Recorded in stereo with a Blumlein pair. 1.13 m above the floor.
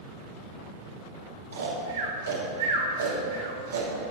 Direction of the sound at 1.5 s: 65° right.